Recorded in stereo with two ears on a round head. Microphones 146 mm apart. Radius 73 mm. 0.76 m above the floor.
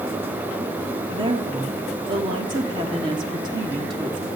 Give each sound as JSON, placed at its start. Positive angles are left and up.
{"t": 1.1, "sound": "a woman speaking", "side_deg": -30, "distance_m": 1.4}